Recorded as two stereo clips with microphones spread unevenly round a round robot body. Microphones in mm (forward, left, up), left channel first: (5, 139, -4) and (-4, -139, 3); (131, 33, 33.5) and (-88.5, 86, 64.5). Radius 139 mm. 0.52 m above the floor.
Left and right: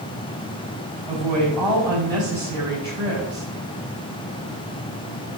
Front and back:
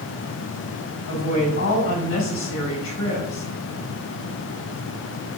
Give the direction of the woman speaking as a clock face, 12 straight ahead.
1 o'clock.